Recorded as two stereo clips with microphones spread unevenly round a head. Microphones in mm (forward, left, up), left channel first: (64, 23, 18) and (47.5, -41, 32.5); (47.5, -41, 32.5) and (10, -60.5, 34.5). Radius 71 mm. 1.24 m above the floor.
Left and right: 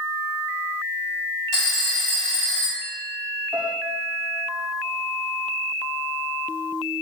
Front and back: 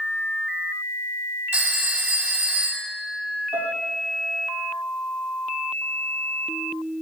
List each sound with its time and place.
1.5 s a phone ringing: 140° left, 4 m
3.5 s a piano: straight behind, 8.5 m